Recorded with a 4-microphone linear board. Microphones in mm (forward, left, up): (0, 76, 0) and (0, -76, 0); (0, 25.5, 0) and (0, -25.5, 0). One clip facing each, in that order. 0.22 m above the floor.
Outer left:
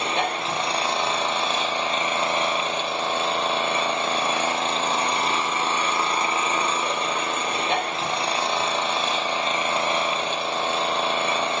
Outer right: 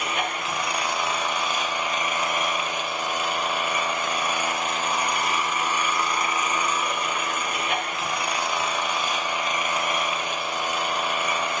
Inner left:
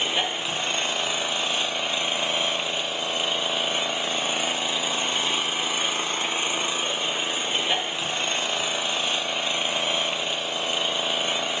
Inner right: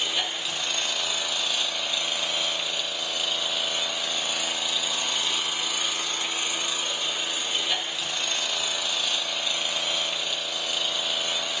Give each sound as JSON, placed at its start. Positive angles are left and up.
{"t": 0.0, "sound": "an engine running", "side_deg": 30, "distance_m": 3.0}